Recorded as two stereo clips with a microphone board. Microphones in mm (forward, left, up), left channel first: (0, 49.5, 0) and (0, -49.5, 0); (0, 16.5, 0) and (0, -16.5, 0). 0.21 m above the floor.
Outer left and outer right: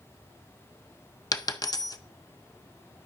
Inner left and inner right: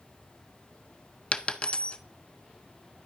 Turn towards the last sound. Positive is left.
turn(degrees=40)  # may be behind; listen again after turning